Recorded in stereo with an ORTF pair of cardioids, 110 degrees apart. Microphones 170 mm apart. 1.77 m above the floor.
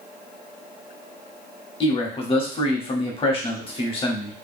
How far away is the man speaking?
About 0.9 m.